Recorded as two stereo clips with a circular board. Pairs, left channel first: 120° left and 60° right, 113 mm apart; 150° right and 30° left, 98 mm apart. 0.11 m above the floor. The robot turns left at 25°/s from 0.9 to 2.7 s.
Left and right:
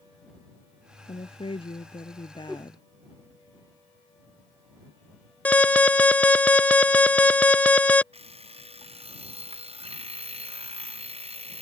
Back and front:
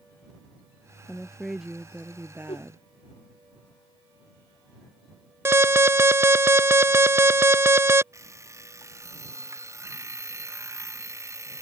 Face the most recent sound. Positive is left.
turn(degrees=-30)